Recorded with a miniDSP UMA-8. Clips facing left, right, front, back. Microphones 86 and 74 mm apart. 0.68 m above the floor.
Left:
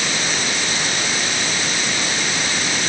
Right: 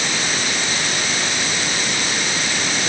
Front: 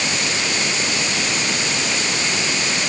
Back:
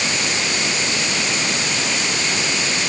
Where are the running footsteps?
No running footsteps in this recording.